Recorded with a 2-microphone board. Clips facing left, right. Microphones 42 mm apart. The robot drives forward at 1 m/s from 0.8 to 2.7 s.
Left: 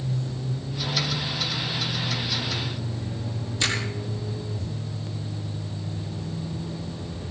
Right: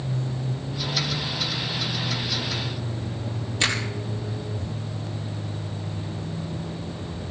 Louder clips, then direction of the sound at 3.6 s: Right 2 dB; 45° right (ahead or behind).